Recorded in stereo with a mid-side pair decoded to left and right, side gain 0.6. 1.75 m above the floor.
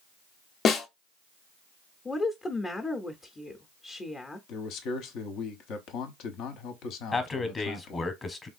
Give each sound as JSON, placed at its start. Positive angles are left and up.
{"t": 0.7, "sound": "a snare drum", "azimuth_deg": 40, "distance_m": 0.7}
{"t": 2.0, "sound": "a woman speaking", "azimuth_deg": 25, "distance_m": 0.6}
{"t": 4.5, "sound": "a man speaking", "azimuth_deg": 65, "distance_m": 0.8}
{"t": 7.1, "sound": "a man speaking", "azimuth_deg": 20, "distance_m": 0.9}